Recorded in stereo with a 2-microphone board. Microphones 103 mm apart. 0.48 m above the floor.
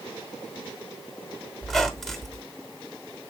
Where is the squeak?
5° left (ahead or behind), 1.1 m.